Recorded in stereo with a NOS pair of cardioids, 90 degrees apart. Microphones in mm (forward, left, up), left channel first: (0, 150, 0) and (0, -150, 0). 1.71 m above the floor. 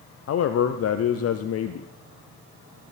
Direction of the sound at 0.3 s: 50° left.